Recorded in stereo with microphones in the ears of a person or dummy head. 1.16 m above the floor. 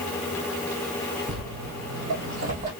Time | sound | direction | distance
1.3 | footsteps | 30° right (ahead or behind) | 1.6 m